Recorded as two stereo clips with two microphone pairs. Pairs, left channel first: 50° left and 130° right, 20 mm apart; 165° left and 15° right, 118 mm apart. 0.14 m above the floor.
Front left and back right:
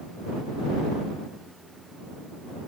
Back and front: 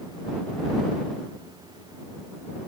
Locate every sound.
Only background noise.